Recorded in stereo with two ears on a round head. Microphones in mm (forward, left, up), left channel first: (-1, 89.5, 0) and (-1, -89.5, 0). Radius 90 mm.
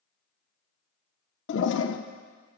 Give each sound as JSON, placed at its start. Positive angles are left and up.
{"t": 1.5, "sound": "a toilet flushing", "side_deg": 60, "distance_m": 0.6}